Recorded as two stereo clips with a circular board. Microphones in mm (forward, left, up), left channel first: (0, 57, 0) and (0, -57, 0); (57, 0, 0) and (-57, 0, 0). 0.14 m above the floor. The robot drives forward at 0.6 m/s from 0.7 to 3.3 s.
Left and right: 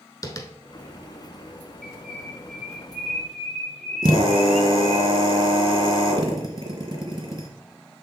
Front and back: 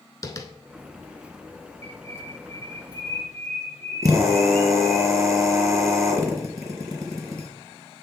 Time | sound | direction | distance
0.2 | tapping | 45° left | 0.7 m
1.8 | a bird | 175° left | 2.5 m
4.0 | a drill | 125° right | 1.7 m